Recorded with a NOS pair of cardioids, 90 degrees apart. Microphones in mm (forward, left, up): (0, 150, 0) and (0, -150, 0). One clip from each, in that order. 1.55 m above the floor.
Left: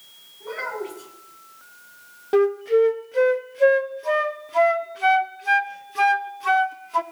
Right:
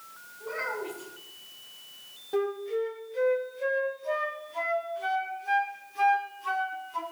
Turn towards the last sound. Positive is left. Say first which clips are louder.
# left 11 dB
turn(degrees=65)